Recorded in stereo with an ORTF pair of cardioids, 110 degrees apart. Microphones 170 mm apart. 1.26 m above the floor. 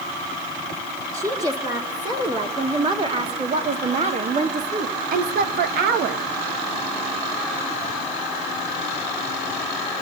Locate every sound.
1.1 s a woman speaking: 20° right, 3.5 m; by 6.2 s 75° right, 1.6 m